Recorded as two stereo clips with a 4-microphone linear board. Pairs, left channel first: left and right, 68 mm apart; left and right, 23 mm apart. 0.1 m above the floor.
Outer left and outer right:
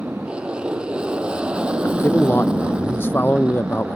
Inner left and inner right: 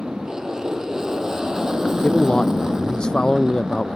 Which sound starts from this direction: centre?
An aircraft, at 0.0 s.